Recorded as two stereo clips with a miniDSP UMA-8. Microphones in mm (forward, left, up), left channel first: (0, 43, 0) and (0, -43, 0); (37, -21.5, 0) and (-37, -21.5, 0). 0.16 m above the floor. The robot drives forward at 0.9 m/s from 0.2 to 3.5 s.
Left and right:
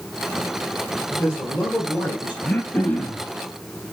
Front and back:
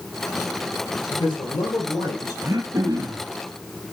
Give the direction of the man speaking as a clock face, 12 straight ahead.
12 o'clock.